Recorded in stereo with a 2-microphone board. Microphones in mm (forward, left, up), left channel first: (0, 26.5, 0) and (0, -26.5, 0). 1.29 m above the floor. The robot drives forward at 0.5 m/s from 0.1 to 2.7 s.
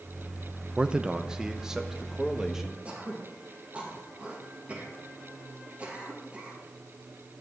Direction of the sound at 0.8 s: 20° right (ahead or behind).